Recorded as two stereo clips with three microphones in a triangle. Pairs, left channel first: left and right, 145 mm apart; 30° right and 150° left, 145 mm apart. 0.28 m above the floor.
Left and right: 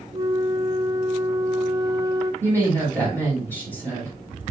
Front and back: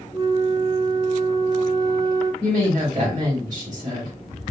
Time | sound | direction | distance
0.1 | a flute | 150° right | 0.9 m
2.4 | a woman speaking | 160° right | 2.5 m